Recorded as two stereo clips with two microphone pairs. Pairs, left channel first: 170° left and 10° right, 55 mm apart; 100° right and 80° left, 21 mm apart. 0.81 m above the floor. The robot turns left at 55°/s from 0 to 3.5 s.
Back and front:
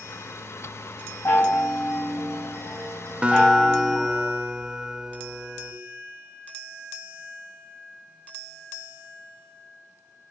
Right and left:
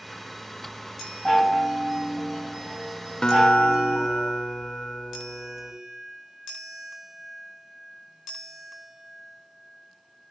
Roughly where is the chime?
Behind.